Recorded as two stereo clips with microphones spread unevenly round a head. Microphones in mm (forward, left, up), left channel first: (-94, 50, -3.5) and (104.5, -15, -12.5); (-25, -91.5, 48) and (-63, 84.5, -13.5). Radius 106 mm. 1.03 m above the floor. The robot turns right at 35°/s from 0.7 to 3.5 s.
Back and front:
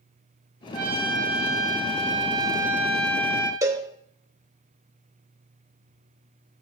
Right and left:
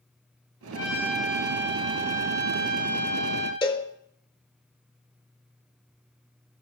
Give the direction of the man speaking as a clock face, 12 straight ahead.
No man speaking in this recording.